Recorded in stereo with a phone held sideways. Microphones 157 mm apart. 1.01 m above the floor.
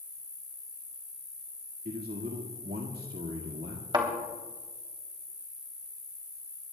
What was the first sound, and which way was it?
An insect, 30° right (ahead or behind).